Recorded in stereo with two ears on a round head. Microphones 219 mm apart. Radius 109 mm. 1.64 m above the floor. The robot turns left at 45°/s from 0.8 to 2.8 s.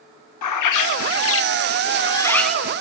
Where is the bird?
75° left, 0.7 m; by 2.8 s 15° right, 0.7 m.